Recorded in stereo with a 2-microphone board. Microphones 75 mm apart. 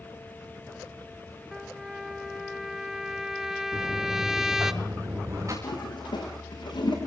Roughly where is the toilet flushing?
Left.